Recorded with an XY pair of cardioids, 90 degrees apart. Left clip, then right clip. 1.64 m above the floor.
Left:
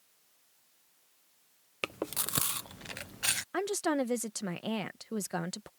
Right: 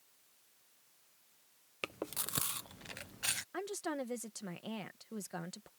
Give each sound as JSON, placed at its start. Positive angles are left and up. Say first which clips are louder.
{"t": 1.8, "sound": "chewing", "louder": "left 6 dB", "azimuth_deg": 35}
{"t": 3.5, "sound": "a woman speaking", "louder": "left 9 dB", "azimuth_deg": 60}